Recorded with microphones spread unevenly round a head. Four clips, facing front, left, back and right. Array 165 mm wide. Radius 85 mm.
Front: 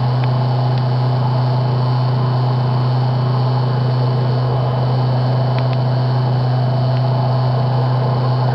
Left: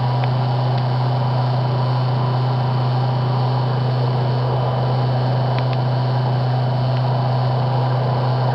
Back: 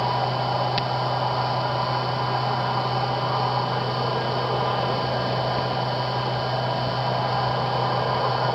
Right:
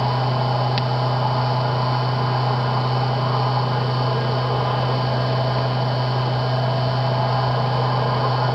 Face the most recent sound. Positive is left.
turn(degrees=0)